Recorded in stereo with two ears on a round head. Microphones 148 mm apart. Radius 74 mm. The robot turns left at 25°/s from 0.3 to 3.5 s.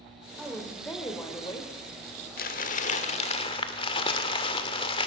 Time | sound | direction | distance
0.4 | a woman speaking | straight behind | 2.5 m
2.4 | crumpling | 55° left (ahead or behind) | 1.6 m